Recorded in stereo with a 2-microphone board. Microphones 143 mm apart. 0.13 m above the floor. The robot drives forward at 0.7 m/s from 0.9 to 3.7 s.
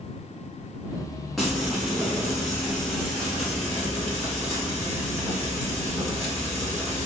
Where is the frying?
Centre (ahead or behind), 1.4 m.